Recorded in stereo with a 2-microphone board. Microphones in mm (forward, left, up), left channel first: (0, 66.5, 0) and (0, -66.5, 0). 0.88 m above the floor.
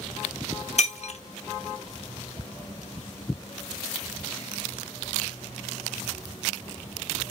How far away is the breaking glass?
About 0.7 m.